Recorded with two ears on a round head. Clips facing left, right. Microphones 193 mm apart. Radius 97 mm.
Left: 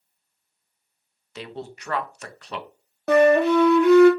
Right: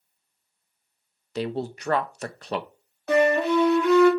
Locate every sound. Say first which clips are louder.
1.4 s a man speaking: right 7 dB; 30° right (ahead or behind), 0.5 m
3.1 s a flute: left 4 dB; 45° left (ahead or behind), 0.8 m